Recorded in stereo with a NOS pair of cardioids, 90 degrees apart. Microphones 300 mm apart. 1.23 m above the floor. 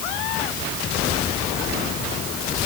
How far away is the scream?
No scream in this recording.